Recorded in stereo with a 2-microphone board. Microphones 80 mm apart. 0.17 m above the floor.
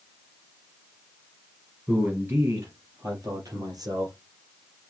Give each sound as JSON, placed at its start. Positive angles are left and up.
{"t": 1.9, "sound": "a man speaking", "side_deg": -20, "distance_m": 2.5}